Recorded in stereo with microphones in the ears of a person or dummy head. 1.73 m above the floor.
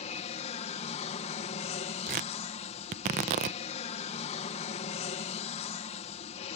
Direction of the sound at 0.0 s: 35° left (ahead or behind).